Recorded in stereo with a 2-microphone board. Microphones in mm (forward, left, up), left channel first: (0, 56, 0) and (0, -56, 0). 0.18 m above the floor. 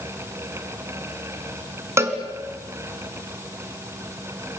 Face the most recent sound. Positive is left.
turn(degrees=-25)  # may be behind; listen again after turning